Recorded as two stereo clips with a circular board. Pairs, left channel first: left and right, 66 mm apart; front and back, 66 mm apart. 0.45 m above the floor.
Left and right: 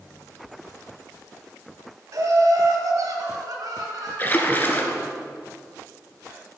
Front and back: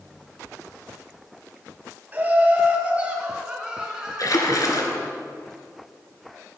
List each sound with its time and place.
2.1 s laughter: 120° right, 2.5 m; by 5.1 s 100° right, 5.5 m
4.2 s a splash: 30° left, 1.7 m